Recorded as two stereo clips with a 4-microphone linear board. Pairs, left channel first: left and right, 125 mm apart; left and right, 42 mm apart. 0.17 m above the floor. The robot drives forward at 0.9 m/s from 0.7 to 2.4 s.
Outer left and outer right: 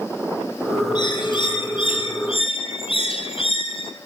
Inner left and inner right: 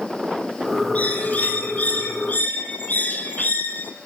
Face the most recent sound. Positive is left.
turn(degrees=50)  # may be behind; listen again after turning